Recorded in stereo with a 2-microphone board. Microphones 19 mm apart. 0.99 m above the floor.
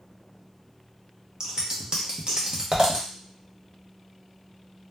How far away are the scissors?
About 0.7 m.